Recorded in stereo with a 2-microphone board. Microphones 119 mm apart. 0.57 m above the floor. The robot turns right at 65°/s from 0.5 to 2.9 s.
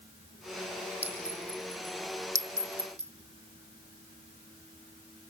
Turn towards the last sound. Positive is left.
turn(degrees=-55)  # may be behind; listen again after turning